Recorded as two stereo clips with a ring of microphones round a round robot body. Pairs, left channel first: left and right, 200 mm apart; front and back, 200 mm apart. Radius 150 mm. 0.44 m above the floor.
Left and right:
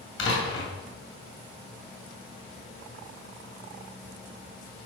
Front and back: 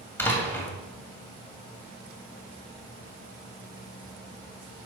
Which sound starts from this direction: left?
A door slam, at 0.2 s.